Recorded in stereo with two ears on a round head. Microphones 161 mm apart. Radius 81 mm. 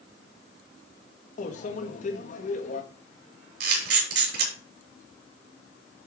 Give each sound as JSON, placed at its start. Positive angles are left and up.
{"t": 1.4, "sound": "a microwave", "side_deg": 45, "distance_m": 1.5}
{"t": 3.6, "sound": "a camera shutter", "side_deg": -65, "distance_m": 6.0}